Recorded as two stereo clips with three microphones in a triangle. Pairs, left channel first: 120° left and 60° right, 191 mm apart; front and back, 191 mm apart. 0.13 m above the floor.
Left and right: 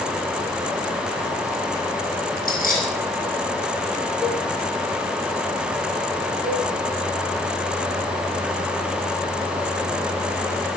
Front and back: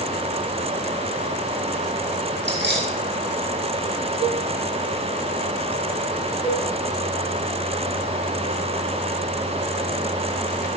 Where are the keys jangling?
160° left, 4 m.